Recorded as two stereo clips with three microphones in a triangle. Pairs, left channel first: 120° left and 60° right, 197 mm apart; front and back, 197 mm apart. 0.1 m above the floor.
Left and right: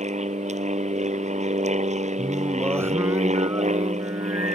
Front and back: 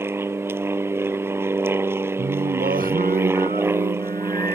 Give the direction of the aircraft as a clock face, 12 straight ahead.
3 o'clock.